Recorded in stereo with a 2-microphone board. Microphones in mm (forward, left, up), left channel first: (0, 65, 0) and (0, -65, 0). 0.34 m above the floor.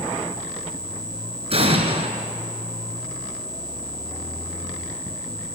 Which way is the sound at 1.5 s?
50° right (ahead or behind).